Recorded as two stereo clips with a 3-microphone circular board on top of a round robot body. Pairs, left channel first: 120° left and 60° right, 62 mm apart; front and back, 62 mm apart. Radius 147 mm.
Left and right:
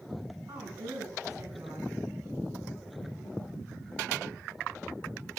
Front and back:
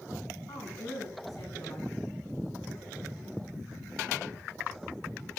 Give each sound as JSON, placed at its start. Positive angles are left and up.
{"t": 0.5, "sound": "a woman speaking", "azimuth_deg": -35, "distance_m": 5.5}